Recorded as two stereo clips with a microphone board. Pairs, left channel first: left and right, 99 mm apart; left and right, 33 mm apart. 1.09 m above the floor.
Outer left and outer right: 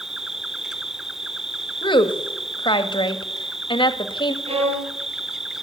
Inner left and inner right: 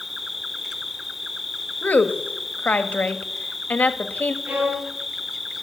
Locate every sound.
0.0 s an insect: 5° right (ahead or behind), 0.8 m
1.8 s a woman speaking: 55° left (ahead or behind), 1.7 m
4.5 s a violin: 85° right, 9 m